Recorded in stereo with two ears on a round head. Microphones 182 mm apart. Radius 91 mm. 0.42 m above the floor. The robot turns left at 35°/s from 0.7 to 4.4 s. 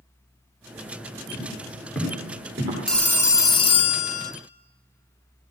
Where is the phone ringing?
Straight behind, 0.7 m; by 4.3 s 125° left, 0.7 m.